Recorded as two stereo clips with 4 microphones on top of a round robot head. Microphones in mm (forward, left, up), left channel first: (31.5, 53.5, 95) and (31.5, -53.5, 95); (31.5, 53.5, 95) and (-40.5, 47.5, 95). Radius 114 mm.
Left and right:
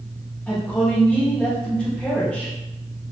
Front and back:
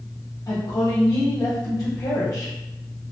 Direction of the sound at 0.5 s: 15° left.